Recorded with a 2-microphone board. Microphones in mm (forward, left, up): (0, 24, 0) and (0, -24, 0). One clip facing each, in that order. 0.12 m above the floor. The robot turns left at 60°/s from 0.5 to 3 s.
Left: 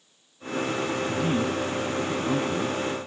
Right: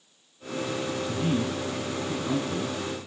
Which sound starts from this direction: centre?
A man speaking, at 1.1 s.